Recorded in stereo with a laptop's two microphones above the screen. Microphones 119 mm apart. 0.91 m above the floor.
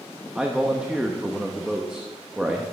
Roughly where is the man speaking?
Centre.